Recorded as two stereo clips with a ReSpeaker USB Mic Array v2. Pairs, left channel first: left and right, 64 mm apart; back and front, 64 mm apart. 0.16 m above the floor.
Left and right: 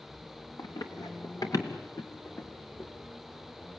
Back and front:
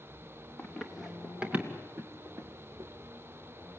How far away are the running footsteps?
About 3 m.